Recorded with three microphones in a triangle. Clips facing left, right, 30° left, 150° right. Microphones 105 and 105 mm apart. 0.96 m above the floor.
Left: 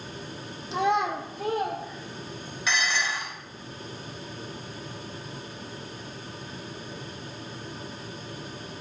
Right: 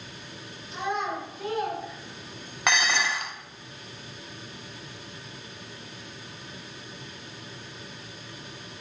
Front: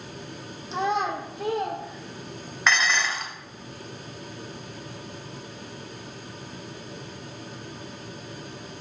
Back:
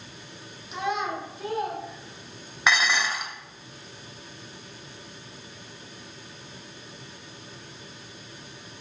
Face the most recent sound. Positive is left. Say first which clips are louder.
# right 3 dB, even
turn(degrees=-70)